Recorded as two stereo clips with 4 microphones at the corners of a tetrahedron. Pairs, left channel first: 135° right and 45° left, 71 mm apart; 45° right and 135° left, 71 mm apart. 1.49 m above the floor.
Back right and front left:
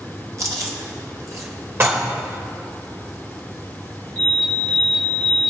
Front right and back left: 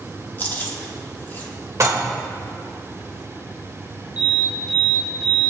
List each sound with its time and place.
0.4 s chewing: 15° left, 1.7 m
1.8 s dishes clattering: 95° left, 1.2 m
4.2 s an alarm: 65° right, 4 m